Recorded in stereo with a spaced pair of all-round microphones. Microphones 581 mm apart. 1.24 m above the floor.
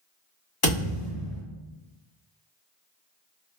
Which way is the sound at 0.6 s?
55° left (ahead or behind).